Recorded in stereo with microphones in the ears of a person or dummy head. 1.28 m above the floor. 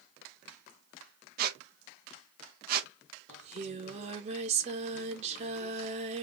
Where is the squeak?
50° right (ahead or behind), 0.7 m.